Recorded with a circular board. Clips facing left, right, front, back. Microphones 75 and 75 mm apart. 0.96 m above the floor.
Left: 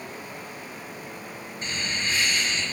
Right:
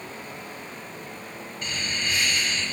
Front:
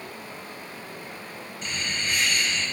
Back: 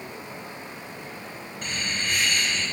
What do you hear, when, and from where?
1.6 s laughter: 145° left, 6 m